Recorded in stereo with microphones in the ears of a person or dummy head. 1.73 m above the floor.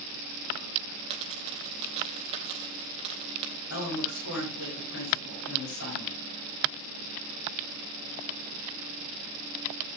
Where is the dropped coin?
35° right (ahead or behind), 3 m.